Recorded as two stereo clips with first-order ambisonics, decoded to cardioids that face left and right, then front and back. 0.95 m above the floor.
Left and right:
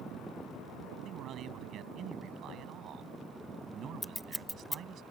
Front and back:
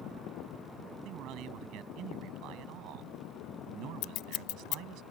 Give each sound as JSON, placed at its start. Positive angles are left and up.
{"t": 1.1, "sound": "a man speaking", "azimuth_deg": -145}
{"t": 4.0, "sound": "scissors", "azimuth_deg": 0}